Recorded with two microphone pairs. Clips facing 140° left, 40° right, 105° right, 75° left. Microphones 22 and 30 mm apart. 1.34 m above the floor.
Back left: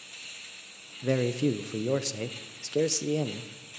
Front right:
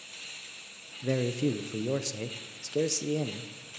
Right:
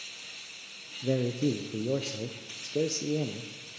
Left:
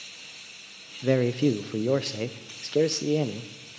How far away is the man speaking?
About 0.6 m.